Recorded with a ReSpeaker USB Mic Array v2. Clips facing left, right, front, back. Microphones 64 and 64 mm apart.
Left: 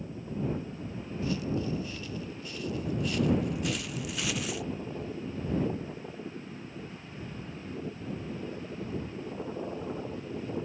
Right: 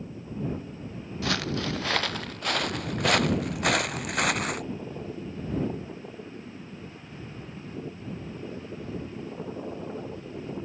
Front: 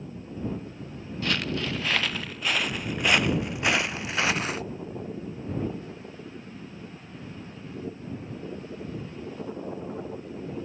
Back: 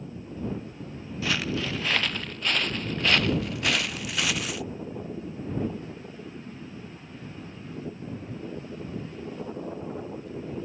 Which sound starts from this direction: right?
Footsteps, at 1.2 s.